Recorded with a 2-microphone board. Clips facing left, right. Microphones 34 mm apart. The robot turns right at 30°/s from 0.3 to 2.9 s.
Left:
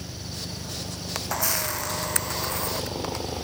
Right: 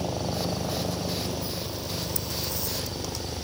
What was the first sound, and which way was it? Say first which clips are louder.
A helicopter: right 8 dB; 55° right.